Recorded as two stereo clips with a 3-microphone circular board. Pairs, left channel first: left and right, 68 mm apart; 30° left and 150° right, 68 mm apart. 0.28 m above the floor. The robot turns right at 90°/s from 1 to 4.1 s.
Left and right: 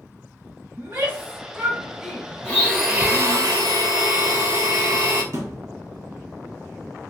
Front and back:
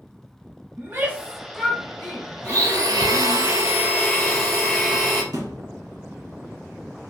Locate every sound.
0.8 s a shout: 110° right, 1.1 m; by 3.4 s 110° left, 1.1 m
2.4 s a blender: 150° left, 1.3 m; by 5.2 s 60° right, 1.3 m
5.3 s a thud: 130° right, 1.0 m